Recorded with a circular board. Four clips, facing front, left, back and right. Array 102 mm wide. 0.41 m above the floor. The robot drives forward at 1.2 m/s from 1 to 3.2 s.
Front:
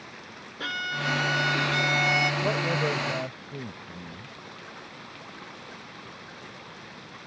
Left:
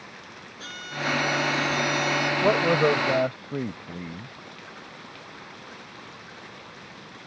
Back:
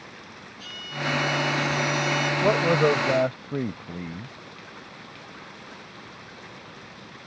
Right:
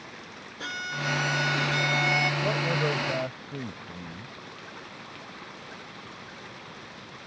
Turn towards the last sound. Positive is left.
turn(degrees=150)